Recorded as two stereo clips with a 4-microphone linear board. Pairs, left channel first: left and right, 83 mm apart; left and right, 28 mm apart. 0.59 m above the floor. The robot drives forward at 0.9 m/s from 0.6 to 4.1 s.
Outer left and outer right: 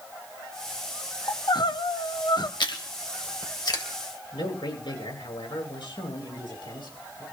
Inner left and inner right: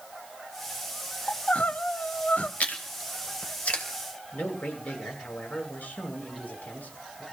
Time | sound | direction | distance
1.3 | crying | 50° left (ahead or behind) | 1.0 m
2.6 | chewing | 70° left (ahead or behind) | 2.5 m
4.3 | a man speaking | 70° left (ahead or behind) | 8.5 m